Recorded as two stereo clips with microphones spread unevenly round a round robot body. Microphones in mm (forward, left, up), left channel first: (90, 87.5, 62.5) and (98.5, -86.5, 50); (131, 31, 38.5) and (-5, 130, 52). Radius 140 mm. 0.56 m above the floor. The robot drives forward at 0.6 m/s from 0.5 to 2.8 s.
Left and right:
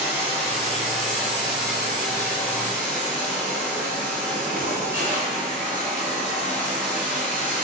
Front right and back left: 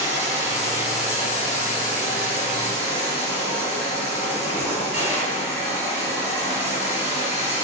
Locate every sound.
0.0 s running water: 150° right, 2 m; by 7.6 s 165° right, 3.5 m